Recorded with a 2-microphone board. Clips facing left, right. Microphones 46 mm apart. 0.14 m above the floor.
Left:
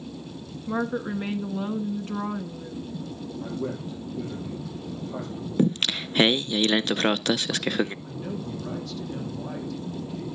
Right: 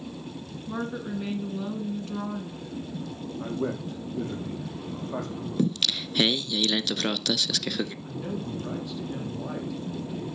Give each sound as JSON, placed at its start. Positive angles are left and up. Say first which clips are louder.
{"t": 0.7, "sound": "a woman speaking", "louder": "left 5 dB", "side_deg": 30, "distance_m": 1.2}
{"t": 3.4, "sound": "a man speaking", "louder": "right 2 dB", "side_deg": -55, "distance_m": 6.5}
{"t": 5.6, "sound": "singing", "louder": "left 3 dB", "side_deg": 35, "distance_m": 0.5}
{"t": 8.0, "sound": "a man speaking", "louder": "even", "side_deg": -15, "distance_m": 4.5}